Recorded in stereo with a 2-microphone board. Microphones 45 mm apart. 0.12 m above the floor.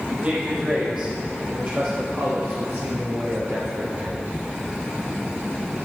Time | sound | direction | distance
0.1 | a man speaking | 30° right (ahead or behind) | 4 m